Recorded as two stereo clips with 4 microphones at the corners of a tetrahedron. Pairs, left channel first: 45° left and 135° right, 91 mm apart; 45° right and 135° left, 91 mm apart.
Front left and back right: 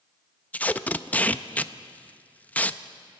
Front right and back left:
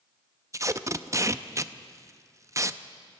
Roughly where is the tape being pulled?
Left.